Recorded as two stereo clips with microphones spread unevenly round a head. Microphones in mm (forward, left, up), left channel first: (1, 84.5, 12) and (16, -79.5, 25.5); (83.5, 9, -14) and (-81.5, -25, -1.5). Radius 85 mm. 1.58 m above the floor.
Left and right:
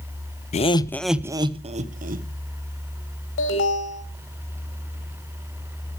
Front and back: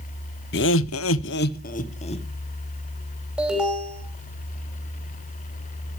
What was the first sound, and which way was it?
Laughter, 45° left.